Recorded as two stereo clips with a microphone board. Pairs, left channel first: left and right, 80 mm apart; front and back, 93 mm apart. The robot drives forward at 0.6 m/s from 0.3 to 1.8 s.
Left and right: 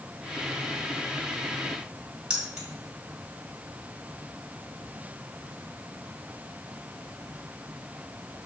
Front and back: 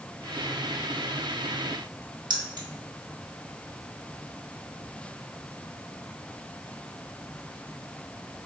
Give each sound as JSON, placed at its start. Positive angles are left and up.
{"t": 2.3, "sound": "keys jangling", "azimuth_deg": -170, "distance_m": 1.4}